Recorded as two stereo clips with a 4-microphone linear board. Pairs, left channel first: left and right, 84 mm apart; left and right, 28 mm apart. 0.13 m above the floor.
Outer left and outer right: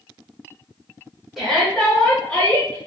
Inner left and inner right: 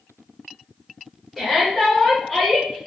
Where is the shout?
5° right (ahead or behind), 1.3 m; by 2.8 s 20° left (ahead or behind), 1.6 m.